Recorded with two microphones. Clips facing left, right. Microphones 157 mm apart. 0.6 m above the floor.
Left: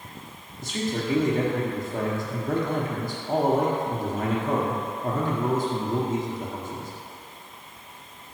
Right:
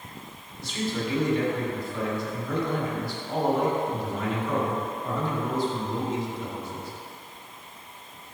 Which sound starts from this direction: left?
A man speaking, at 0.6 s.